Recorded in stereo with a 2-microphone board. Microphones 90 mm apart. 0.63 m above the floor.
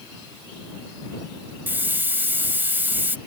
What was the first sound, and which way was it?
A hiss, 20° right (ahead or behind).